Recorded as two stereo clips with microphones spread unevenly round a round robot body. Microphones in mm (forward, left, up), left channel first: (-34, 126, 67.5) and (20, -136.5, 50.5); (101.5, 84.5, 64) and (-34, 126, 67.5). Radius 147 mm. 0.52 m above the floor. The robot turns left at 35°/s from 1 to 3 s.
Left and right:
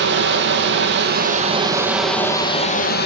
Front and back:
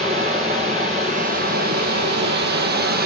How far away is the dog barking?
No dog barking in this recording.